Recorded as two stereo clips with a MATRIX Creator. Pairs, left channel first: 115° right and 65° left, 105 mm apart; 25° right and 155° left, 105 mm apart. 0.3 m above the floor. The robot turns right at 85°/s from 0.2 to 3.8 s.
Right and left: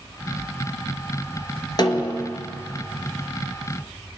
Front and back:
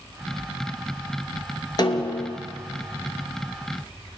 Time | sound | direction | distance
1.8 | a snare drum | 70° right | 0.8 m